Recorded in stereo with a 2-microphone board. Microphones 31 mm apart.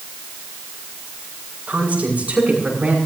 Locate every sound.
1.7 s a woman speaking: 50° right (ahead or behind), 9 m; by 3.0 s 45° right (ahead or behind), 9.5 m